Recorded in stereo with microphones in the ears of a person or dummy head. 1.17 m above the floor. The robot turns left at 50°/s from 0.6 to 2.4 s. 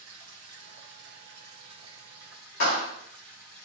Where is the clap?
65° left (ahead or behind), 2.5 m.